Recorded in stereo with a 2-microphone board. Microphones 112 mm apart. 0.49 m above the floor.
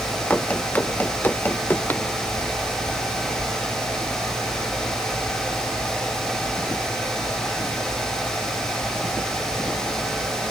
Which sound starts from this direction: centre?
Running footsteps, at 0.3 s.